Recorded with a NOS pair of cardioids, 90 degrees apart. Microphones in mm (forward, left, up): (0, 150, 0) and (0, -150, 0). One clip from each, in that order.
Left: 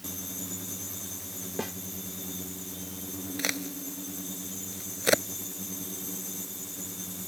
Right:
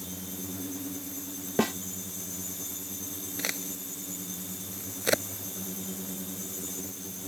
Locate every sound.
1.6 s a snare drum: 55° right
3.4 s a crack: 20° left